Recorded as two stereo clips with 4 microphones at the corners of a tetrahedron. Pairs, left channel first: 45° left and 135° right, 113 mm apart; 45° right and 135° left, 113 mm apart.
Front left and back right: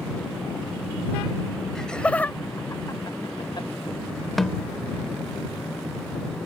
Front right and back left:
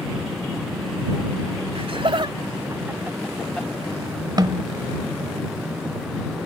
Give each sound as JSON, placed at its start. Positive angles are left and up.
{"t": 1.8, "sound": "laughter", "azimuth_deg": 130}
{"t": 4.4, "sound": "a snare drum", "azimuth_deg": 135}